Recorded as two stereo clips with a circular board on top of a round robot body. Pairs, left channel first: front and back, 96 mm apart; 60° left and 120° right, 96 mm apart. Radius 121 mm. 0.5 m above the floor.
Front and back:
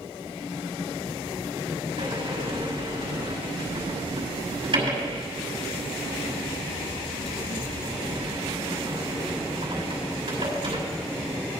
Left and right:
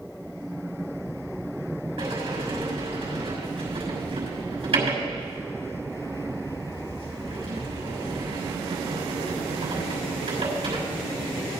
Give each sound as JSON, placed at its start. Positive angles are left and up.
{"t": 2.0, "sound": "a sliding door", "azimuth_deg": -145, "distance_m": 5.5}